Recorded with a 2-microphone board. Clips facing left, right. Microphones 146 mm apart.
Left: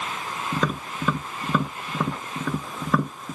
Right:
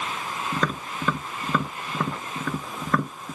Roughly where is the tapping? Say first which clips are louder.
Left 2 dB; centre.